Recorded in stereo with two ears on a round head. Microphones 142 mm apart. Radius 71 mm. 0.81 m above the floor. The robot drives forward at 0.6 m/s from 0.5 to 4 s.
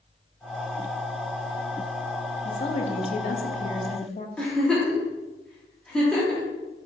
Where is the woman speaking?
35° left (ahead or behind), 1.0 m; by 4.3 s 45° left (ahead or behind), 0.8 m.